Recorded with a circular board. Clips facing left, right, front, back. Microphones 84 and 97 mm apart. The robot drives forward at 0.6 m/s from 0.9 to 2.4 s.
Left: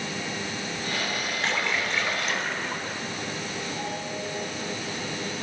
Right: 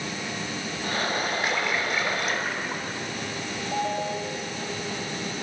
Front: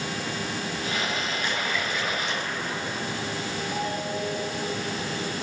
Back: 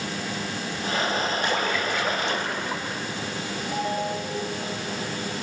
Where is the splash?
165° right, 2.5 m; by 3.0 s 170° right, 3 m.